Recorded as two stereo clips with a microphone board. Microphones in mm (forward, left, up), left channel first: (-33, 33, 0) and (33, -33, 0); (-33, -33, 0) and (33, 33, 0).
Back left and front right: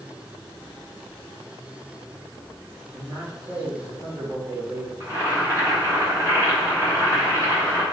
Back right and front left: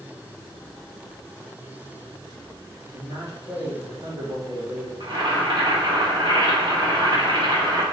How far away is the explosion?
No explosion in this recording.